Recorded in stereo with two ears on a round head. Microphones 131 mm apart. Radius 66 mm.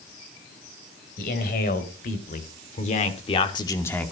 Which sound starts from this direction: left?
A man speaking, at 1.2 s.